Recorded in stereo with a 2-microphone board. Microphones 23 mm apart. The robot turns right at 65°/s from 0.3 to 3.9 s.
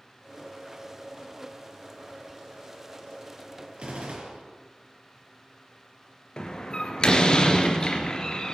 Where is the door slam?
35° left (ahead or behind), 2 m.